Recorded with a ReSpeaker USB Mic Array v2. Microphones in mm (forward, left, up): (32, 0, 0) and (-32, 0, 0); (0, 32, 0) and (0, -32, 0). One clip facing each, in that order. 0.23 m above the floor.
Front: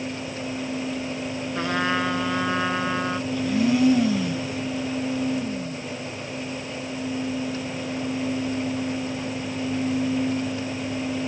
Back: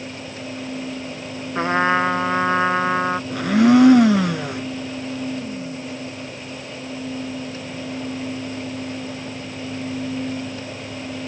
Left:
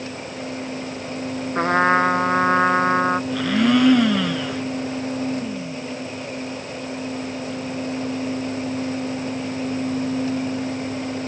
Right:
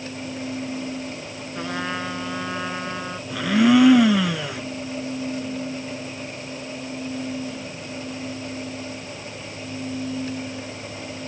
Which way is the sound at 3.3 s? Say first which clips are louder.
Back 8 dB, right 5 dB; 175° right.